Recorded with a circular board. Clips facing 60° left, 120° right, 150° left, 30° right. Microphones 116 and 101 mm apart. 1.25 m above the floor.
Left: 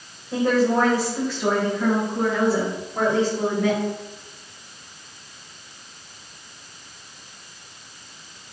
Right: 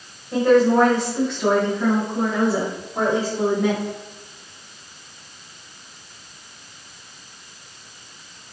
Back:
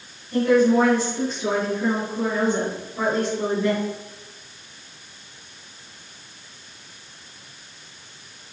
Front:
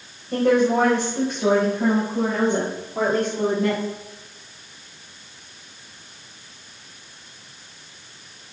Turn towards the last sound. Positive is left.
turn(degrees=-45)